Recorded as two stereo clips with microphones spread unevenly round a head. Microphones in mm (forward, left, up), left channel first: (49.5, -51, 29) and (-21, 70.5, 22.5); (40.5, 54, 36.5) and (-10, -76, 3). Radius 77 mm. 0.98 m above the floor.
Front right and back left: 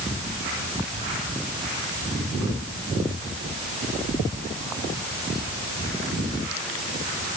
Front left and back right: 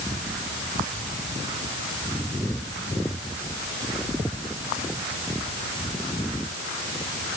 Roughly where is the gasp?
I don't hear a gasp.